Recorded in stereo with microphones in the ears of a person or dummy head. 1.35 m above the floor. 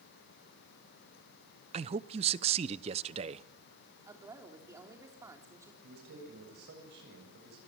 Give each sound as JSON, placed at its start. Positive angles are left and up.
{"t": 1.7, "sound": "a man speaking", "side_deg": -30, "distance_m": 0.7}
{"t": 4.1, "sound": "a woman speaking", "side_deg": -15, "distance_m": 4.0}
{"t": 5.8, "sound": "a man speaking", "side_deg": -65, "distance_m": 7.5}